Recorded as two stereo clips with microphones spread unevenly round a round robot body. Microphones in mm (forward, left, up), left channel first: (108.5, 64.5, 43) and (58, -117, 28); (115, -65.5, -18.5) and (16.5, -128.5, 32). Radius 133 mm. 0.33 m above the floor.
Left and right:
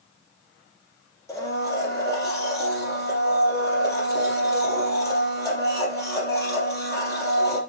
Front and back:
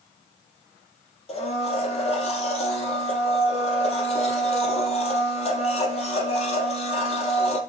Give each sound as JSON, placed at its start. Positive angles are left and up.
{"t": 1.3, "sound": "a blender", "azimuth_deg": 0, "distance_m": 3.5}